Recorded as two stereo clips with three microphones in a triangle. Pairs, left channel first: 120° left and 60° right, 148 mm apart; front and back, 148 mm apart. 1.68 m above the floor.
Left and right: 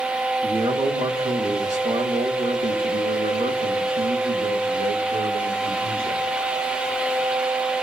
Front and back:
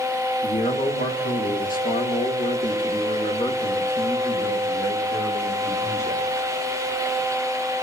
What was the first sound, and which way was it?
A man speaking, 10° right.